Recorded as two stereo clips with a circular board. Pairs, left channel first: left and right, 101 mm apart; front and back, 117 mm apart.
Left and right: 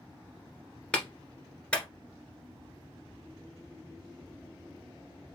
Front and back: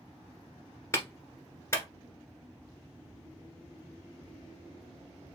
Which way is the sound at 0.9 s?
25° left.